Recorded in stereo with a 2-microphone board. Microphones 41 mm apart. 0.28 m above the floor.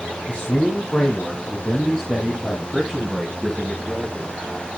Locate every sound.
0.3 s a man speaking: 35° left (ahead or behind), 1.9 m; by 4.4 s centre (ahead or behind), 3.5 m